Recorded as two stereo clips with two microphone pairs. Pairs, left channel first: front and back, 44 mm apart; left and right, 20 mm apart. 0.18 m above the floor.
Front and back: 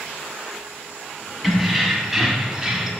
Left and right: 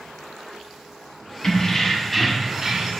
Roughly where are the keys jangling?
Left.